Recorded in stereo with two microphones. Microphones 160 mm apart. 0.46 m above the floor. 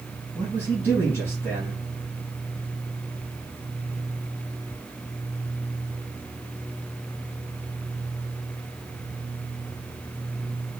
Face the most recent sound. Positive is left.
turn(degrees=20)  # may be behind; listen again after turning